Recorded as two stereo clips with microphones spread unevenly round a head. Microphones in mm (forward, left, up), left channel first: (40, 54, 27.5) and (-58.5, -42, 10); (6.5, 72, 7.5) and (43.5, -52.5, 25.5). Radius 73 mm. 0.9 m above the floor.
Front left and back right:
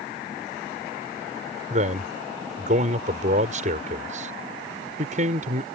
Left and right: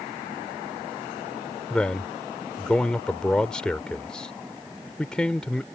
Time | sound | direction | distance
1.7 | a man speaking | 170° right | ?